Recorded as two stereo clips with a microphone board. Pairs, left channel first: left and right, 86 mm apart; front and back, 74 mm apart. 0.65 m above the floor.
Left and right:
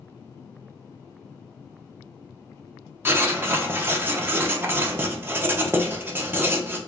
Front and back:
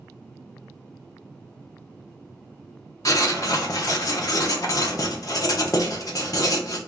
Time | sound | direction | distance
3.0 | writing | 30° right | 0.6 m